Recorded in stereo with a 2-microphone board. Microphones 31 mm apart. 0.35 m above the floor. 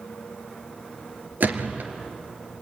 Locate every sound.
1.4 s a gunshot: 70° right (ahead or behind), 1.9 m